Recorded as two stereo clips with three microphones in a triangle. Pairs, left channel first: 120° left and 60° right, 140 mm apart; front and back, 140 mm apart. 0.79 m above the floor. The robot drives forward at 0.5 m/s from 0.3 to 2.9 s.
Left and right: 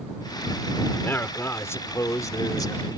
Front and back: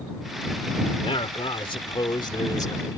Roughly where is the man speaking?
Ahead left.